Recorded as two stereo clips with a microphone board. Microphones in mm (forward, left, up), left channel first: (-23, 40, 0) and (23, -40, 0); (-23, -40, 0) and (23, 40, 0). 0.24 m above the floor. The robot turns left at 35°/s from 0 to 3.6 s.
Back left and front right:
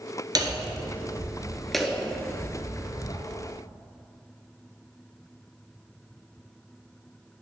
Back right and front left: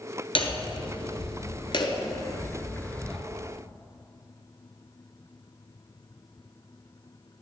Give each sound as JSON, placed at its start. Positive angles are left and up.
{"t": 0.3, "sound": "hammering", "azimuth_deg": -100, "distance_m": 1.1}